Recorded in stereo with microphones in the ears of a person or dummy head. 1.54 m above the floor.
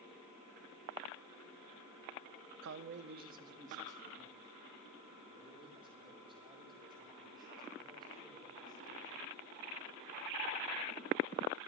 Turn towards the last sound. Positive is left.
turn(degrees=-20)  # may be behind; listen again after turning